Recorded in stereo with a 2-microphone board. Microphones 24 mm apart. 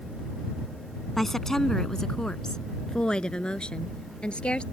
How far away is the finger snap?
I don't hear a finger snap.